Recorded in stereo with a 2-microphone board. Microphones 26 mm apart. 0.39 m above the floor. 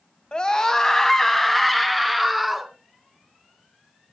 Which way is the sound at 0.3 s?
35° left (ahead or behind).